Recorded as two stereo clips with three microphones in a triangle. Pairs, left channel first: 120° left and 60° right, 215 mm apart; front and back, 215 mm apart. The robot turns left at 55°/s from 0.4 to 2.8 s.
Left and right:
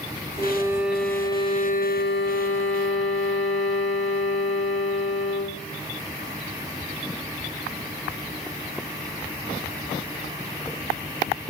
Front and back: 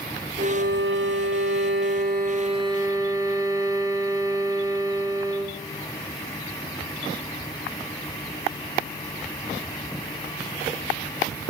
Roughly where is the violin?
Behind right.